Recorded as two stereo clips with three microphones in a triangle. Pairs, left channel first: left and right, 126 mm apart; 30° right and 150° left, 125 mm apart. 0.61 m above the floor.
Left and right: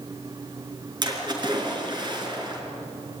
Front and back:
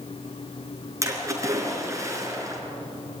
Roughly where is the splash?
Behind right.